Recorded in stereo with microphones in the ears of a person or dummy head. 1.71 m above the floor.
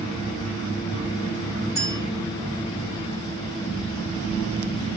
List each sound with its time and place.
1.8 s a clink: 20° left (ahead or behind), 5 m